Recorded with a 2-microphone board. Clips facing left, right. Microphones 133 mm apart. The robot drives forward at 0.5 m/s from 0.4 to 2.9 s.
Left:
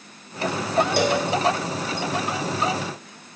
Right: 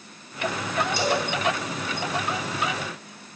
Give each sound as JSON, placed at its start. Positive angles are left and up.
{"t": 1.0, "sound": "a cowbell", "side_deg": 65, "distance_m": 5.0}